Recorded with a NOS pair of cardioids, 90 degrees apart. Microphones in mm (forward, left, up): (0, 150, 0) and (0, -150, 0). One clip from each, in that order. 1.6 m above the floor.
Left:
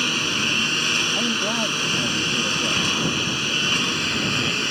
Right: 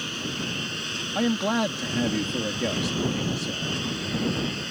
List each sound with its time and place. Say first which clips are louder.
0.0 s a lawn mower: left 9 dB; 70° left
1.1 s a man speaking: left 3 dB; 25° right